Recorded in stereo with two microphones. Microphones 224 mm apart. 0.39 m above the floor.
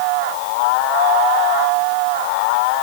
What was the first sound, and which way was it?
Only background noise.